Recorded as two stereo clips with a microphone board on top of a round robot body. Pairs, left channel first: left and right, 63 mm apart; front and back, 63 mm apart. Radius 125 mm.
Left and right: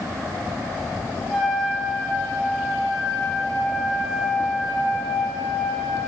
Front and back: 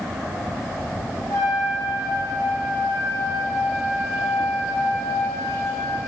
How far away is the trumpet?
About 3.5 m.